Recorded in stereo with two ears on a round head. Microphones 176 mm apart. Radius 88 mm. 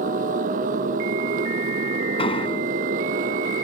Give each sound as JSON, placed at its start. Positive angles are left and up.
{"t": 0.0, "sound": "a motorcycle", "side_deg": -40}
{"t": 2.2, "sound": "an explosion", "side_deg": 30}